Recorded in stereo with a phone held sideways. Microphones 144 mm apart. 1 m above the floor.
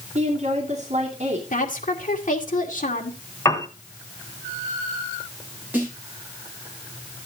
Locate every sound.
0.1 s a woman speaking: 50° right (ahead or behind), 2.5 m
1.5 s a woman speaking: 65° left (ahead or behind), 2 m
3.5 s a piano: 20° left (ahead or behind), 1.4 m
5.7 s a snare drum: 10° right (ahead or behind), 6.5 m